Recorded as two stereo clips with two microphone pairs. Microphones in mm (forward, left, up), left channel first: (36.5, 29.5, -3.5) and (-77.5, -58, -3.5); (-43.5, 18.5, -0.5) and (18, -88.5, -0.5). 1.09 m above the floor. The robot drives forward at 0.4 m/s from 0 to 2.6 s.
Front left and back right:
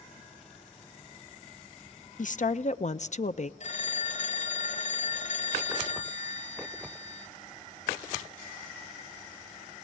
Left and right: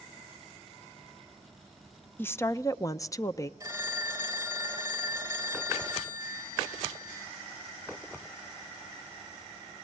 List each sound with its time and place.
2.2 s a woman speaking: 45° left, 0.7 m; by 3.5 s 60° left, 0.6 m
3.6 s a phone ringing: 5° left, 2.5 m